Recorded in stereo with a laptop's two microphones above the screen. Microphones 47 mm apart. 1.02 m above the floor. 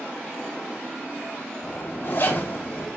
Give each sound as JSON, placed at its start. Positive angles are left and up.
{"t": 1.6, "sound": "a zipper", "side_deg": 60, "distance_m": 2.5}